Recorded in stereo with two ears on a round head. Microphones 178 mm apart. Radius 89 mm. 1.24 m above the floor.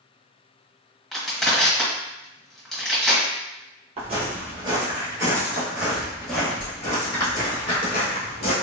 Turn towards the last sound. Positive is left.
turn(degrees=35)  # may be behind; listen again after turning